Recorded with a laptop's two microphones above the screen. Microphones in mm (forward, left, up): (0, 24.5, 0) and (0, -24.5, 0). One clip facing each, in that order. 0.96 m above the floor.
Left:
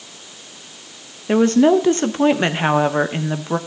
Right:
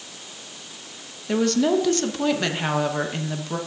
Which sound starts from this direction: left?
A woman speaking, at 1.3 s.